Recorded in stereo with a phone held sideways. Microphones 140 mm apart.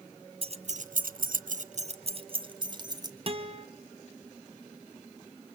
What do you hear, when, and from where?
0.4 s keys jangling: 40° right (ahead or behind), 0.6 m; by 3.1 s 30° right (ahead or behind), 1.3 m
3.3 s a guitar: 40° right (ahead or behind), 1.1 m